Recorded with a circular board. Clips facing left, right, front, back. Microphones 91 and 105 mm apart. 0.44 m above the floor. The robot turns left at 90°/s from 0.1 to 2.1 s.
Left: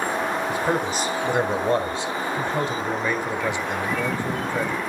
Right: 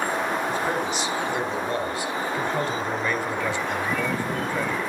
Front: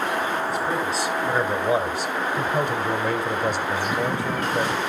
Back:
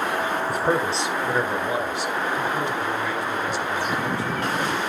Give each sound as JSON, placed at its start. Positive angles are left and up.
{"t": 0.5, "sound": "a man speaking", "azimuth_deg": 165, "distance_m": 1.9}